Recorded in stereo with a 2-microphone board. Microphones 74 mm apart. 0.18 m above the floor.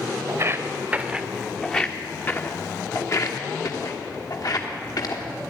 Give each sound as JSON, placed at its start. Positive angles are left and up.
{"t": 0.3, "sound": "footsteps", "side_deg": -40, "distance_m": 1.0}